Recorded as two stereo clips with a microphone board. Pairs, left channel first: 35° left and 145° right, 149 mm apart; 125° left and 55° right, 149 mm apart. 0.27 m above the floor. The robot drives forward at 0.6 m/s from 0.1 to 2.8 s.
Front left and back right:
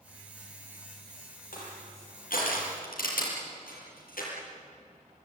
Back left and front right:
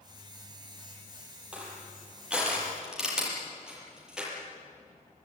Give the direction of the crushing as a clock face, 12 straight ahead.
11 o'clock.